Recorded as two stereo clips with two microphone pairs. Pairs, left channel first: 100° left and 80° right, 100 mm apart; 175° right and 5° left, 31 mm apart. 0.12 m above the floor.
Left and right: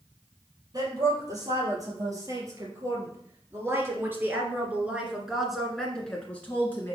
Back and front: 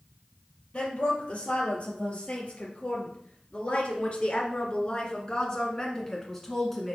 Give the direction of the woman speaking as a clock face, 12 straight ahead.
4 o'clock.